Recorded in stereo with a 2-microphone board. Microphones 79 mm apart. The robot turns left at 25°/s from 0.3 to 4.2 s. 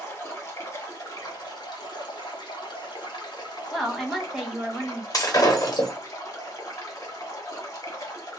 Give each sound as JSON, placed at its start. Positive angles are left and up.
{"t": 0.0, "sound": "running water", "azimuth_deg": 145, "distance_m": 1.2}
{"t": 3.7, "sound": "a woman speaking", "side_deg": 5, "distance_m": 0.8}
{"t": 5.1, "sound": "breaking glass", "side_deg": 50, "distance_m": 1.1}